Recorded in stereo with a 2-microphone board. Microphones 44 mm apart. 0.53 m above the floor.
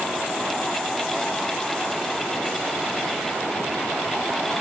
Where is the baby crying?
I don't hear a baby crying.